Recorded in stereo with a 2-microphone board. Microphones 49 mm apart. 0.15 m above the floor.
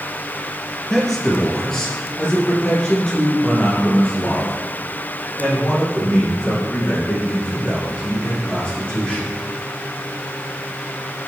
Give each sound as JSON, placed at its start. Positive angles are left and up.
{"t": 0.9, "sound": "a man speaking", "side_deg": 5, "distance_m": 1.9}